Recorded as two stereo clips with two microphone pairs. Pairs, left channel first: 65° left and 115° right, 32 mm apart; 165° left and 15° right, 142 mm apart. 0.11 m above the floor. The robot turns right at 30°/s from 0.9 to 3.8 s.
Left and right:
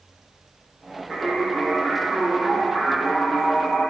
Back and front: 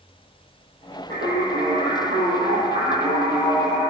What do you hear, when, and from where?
1.1 s singing: 20° right, 2 m; by 3.9 s 60° left, 2 m